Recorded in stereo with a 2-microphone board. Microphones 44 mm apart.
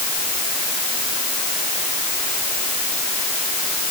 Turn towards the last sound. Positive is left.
No sound to turn to.